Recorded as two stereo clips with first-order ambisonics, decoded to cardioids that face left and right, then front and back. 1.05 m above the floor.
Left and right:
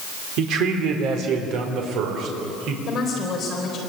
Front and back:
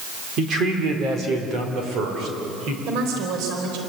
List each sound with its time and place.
0.4 s a man speaking: 125° right, 3.5 m; by 2.8 s 130° right, 4.5 m
2.9 s a woman speaking: 155° left, 4 m